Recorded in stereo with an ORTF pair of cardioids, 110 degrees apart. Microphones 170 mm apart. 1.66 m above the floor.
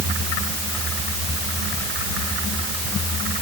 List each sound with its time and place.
Only background noise.